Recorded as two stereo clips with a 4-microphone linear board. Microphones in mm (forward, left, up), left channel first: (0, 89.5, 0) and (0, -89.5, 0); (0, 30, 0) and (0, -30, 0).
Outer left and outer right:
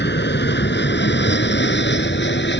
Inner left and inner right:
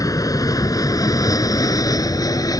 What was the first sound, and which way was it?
An aircraft, 70° left (ahead or behind).